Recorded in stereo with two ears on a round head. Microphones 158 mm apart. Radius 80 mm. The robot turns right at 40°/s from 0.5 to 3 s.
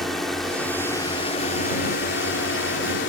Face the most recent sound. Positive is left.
turn(degrees=100)